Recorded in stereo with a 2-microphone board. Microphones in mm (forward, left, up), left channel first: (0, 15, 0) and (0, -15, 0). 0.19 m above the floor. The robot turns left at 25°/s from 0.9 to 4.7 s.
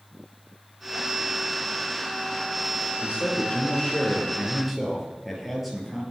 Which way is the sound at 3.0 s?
45° left.